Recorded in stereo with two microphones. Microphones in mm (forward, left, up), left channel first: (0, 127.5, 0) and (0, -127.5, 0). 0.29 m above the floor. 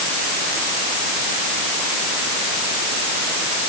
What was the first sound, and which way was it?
Only background noise.